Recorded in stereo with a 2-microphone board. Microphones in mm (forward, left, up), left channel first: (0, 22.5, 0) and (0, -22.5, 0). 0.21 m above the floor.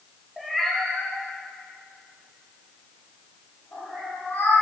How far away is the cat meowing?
About 1.4 m.